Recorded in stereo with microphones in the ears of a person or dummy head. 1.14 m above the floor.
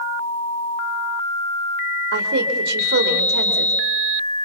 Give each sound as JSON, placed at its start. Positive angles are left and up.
{"t": 2.1, "sound": "a woman speaking", "side_deg": -60, "distance_m": 3.5}